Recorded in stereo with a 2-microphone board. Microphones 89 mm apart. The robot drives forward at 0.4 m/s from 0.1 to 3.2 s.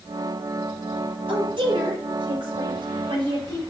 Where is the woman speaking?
70° right (ahead or behind), 5.5 m; by 3.6 s 65° right (ahead or behind), 5.5 m.